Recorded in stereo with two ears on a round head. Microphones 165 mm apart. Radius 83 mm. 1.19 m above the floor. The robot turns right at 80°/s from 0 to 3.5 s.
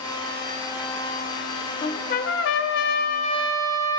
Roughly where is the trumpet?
Ahead left.